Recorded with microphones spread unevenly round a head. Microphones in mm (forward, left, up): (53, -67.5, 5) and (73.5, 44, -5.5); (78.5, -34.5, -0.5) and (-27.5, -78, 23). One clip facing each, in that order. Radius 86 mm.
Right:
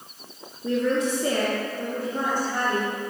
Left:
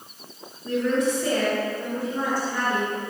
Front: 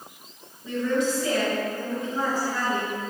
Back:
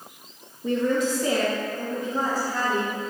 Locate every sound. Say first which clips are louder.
0.6 s a woman speaking: even, back 2 dB; 115° right, 1.2 m; by 2.9 s 105° right, 4 m